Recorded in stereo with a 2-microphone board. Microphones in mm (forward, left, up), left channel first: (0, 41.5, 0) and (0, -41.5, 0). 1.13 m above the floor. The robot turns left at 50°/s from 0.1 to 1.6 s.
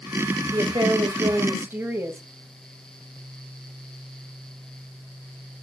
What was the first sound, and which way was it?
A woman speaking, 100° right.